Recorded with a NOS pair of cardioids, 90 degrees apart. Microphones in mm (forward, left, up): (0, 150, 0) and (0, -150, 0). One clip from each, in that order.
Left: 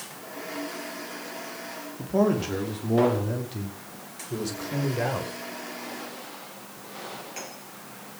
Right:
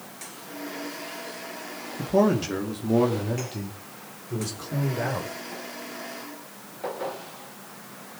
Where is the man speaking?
30° right, 2.5 m; by 5.3 s 5° left, 4.5 m.